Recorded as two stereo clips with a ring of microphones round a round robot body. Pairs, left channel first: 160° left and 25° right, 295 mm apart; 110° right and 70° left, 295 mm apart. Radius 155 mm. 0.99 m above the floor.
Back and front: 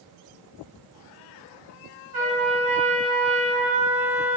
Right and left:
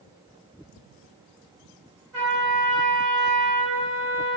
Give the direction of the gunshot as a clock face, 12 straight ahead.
No gunshot in this recording.